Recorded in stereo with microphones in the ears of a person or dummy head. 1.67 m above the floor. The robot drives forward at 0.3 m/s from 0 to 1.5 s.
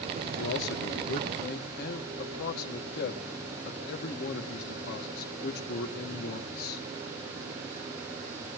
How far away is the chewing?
I don't hear chewing.